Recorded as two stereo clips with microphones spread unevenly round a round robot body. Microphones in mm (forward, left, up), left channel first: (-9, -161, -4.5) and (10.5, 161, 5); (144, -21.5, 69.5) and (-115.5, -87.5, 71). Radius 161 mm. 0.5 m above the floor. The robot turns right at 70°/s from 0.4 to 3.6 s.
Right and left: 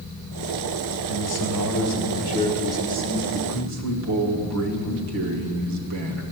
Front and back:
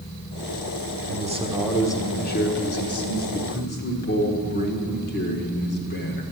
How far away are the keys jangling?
I don't hear keys jangling.